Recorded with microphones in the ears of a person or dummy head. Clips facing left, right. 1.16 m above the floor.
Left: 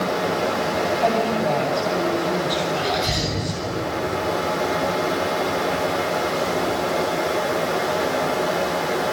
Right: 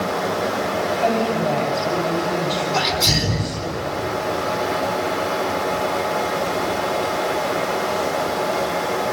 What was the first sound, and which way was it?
A woman speaking, centre (ahead or behind).